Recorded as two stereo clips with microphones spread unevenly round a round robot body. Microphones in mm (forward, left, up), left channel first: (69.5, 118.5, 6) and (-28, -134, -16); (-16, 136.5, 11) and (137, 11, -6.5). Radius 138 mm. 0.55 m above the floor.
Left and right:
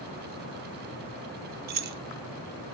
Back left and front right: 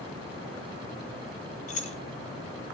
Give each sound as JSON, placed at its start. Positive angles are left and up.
{"t": 1.7, "sound": "keys jangling", "azimuth_deg": -160, "distance_m": 0.5}